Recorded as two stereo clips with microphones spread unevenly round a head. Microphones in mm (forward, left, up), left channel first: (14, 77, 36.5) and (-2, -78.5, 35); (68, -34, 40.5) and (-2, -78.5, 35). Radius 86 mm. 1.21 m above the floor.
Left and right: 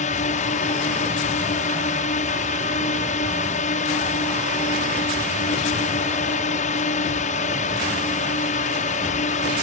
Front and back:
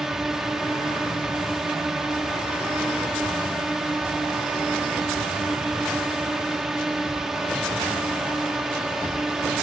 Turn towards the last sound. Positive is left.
turn(degrees=125)